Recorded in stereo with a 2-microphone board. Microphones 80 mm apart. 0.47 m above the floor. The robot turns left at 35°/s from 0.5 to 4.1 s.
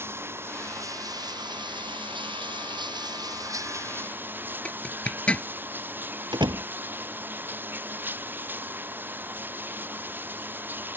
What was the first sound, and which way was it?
Running water, 30° right.